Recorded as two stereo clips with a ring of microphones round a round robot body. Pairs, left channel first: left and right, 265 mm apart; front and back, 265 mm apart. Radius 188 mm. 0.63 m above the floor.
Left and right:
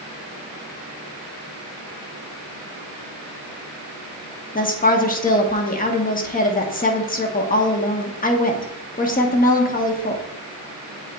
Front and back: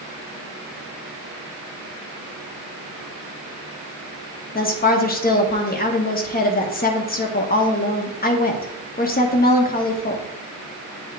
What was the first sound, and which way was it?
A woman speaking, 45° left.